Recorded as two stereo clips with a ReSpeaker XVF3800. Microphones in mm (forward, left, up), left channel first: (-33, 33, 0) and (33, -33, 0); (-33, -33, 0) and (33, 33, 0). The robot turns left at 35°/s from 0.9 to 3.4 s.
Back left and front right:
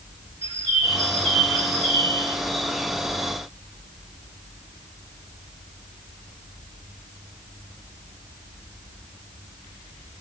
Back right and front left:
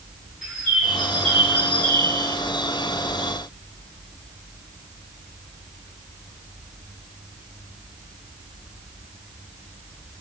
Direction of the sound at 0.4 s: 140° left.